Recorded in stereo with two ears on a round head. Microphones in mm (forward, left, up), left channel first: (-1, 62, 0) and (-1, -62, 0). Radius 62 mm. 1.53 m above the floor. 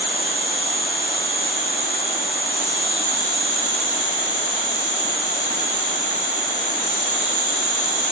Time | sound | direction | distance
0.0 | an insect | 65° right (ahead or behind) | 5 m